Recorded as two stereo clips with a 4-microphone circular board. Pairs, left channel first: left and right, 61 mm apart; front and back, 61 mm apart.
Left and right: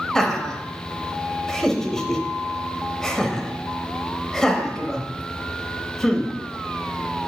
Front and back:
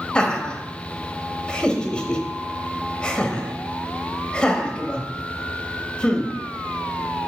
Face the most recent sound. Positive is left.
turn(degrees=25)